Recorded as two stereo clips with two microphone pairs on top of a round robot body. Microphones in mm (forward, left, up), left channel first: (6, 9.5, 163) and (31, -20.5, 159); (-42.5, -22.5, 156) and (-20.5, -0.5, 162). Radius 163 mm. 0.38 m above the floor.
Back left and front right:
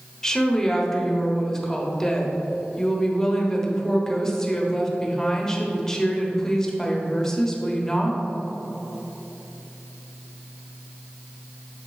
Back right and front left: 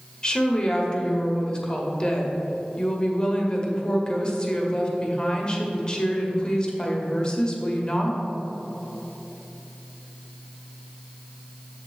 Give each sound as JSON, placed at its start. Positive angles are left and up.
{"t": 0.2, "sound": "a woman speaking", "azimuth_deg": -155, "distance_m": 1.4}